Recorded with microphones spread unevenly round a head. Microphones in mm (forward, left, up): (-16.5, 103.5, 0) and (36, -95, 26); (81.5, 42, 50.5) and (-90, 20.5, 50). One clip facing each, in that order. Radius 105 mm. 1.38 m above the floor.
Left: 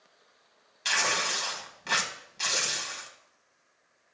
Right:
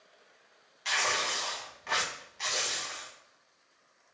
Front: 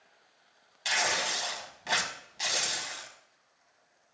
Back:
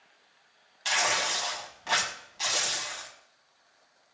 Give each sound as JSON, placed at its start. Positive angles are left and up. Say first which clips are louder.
{"t": 0.8, "sound": "tearing paper", "louder": "left 2 dB, back 2 dB", "azimuth_deg": 75, "distance_m": 1.8}